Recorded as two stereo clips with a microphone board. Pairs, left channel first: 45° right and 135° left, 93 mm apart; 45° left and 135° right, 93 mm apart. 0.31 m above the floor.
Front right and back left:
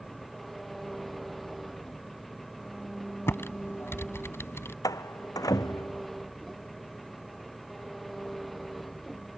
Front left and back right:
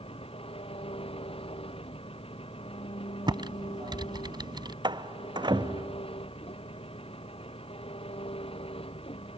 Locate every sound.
0.0 s an engine running: 45° left
3.3 s typing on a keyboard: 105° right
4.8 s a door slam: 95° right